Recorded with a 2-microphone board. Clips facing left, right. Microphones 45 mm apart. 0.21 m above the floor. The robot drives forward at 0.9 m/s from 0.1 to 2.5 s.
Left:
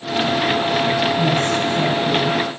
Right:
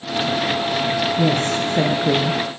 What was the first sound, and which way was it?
A woman speaking, 55° right (ahead or behind).